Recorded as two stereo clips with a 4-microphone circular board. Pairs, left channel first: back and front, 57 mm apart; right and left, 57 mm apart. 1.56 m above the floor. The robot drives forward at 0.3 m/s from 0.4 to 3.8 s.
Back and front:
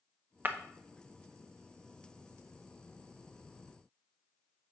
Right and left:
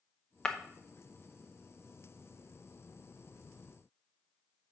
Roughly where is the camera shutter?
I don't hear a camera shutter.